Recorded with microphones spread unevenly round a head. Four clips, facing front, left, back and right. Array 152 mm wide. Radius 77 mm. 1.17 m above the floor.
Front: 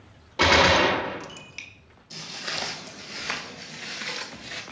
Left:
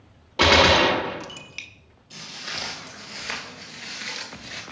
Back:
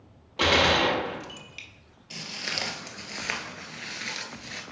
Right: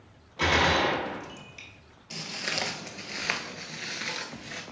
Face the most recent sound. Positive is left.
turn(degrees=-30)